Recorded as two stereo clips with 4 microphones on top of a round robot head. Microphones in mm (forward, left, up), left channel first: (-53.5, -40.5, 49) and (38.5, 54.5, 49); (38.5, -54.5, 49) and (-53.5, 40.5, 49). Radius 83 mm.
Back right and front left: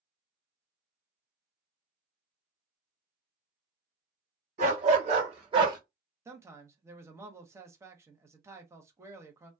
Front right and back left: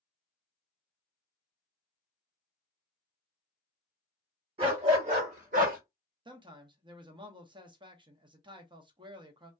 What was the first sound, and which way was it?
A dog barking, 80° left.